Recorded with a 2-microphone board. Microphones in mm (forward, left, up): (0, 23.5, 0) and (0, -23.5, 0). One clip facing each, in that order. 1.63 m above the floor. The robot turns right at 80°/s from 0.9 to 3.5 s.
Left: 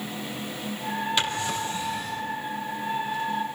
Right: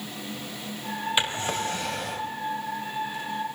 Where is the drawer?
160° right, 3 m; by 2.3 s 70° right, 3 m.